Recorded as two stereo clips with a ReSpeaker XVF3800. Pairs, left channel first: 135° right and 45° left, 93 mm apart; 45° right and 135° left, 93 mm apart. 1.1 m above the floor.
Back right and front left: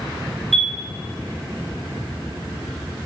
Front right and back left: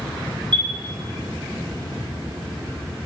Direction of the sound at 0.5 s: 135° left.